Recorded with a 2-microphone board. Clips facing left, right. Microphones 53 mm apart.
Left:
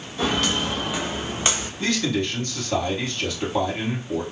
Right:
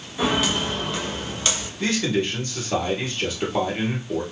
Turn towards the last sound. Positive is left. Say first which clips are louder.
# right 1 dB
turn(degrees=-15)  # may be behind; listen again after turning